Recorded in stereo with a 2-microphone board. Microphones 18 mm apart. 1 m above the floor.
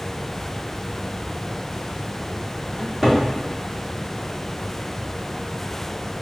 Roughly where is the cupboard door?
Centre.